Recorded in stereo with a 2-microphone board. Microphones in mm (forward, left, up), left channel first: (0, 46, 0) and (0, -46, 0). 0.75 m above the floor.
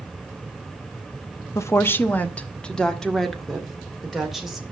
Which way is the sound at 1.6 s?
30° left (ahead or behind).